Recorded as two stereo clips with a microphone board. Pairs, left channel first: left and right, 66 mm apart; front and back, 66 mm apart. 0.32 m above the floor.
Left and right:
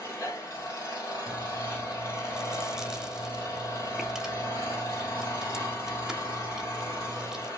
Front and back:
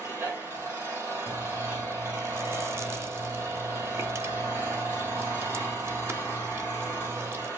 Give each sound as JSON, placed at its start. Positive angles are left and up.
{"t": 0.0, "sound": "an engine running", "azimuth_deg": 125, "distance_m": 4.5}
{"t": 1.3, "sound": "chewing", "azimuth_deg": -165, "distance_m": 0.7}